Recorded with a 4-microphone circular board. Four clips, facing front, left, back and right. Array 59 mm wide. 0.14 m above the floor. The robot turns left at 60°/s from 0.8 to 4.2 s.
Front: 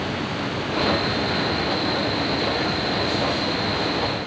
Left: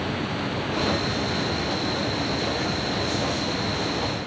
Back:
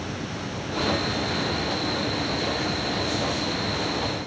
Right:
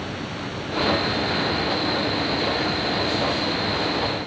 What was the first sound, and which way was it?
Only background noise.